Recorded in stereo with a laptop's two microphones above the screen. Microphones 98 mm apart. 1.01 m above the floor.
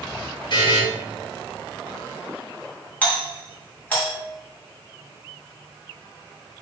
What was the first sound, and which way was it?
A buzzer, 50° left (ahead or behind).